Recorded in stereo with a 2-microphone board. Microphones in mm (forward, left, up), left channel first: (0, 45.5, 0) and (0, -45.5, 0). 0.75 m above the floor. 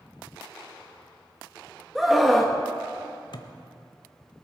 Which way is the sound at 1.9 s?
Centre (ahead or behind).